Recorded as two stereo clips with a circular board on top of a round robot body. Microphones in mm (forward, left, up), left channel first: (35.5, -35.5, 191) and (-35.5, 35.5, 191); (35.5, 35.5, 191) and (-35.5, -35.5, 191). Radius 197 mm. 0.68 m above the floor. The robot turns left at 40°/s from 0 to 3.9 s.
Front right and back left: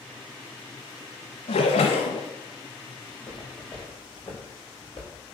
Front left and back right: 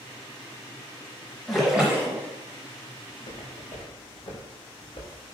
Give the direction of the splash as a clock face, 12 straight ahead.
1 o'clock.